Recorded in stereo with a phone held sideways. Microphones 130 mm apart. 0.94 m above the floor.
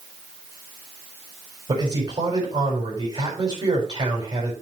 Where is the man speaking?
35° right (ahead or behind), 4.5 m.